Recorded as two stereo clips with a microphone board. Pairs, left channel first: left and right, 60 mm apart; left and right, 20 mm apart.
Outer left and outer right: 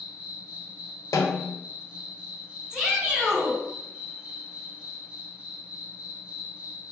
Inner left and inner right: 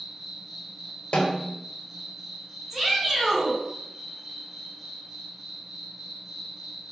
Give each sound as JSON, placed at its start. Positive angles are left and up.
{"t": 0.0, "sound": "an insect", "side_deg": -20, "distance_m": 1.0}
{"t": 1.1, "sound": "a snare drum", "side_deg": 75, "distance_m": 0.5}
{"t": 2.7, "sound": "a shout", "side_deg": -10, "distance_m": 1.4}